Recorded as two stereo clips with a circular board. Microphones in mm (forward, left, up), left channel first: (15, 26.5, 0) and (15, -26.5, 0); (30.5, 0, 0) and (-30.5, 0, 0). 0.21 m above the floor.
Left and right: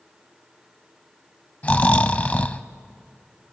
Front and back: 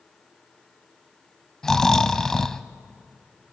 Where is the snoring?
70° left, 0.5 m.